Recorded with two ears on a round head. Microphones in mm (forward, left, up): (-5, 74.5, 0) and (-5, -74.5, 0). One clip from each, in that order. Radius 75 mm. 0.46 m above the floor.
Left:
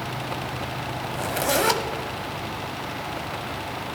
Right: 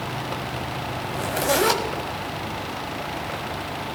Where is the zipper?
10° left (ahead or behind), 1.2 m.